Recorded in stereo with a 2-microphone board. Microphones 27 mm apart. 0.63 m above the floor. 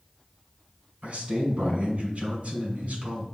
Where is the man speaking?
65° right (ahead or behind), 2 m.